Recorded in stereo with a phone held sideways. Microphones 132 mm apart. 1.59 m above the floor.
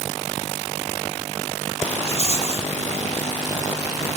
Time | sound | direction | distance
2.0 | a rattle | 55° left (ahead or behind) | 2.5 m